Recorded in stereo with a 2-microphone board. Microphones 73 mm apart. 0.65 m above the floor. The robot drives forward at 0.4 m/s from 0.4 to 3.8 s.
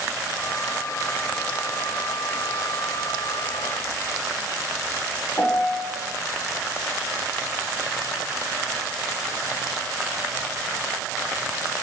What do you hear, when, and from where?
5.4 s a piano: 35° left (ahead or behind), 1.5 m